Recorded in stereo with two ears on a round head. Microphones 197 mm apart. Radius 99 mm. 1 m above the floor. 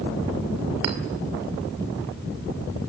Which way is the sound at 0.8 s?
85° right.